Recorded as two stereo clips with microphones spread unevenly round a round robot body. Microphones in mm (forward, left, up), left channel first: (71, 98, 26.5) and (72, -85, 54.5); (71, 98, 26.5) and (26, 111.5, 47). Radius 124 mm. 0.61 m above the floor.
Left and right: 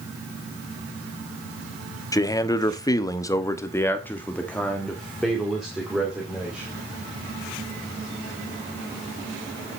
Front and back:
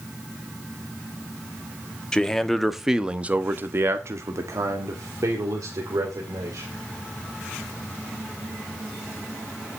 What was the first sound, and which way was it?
A man speaking, 30° left.